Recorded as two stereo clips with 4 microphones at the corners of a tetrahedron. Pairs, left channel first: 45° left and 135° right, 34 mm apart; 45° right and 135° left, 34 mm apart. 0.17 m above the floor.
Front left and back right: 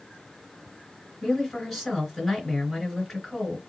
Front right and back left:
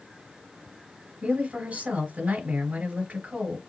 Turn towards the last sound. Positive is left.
turn(degrees=140)